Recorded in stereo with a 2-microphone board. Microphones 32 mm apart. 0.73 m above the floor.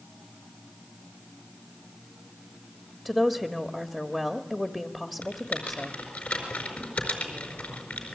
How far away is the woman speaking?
About 1.3 m.